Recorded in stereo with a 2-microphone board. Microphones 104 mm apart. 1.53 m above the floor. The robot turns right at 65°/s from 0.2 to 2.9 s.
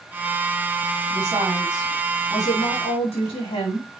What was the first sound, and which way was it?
A woman speaking, 45° right.